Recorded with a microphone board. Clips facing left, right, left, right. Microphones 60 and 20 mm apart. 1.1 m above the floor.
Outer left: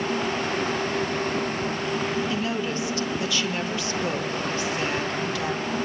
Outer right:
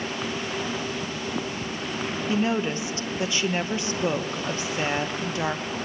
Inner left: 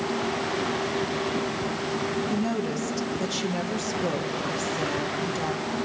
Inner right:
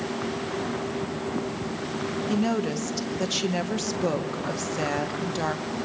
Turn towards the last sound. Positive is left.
turn(degrees=-25)  # may be behind; listen again after turning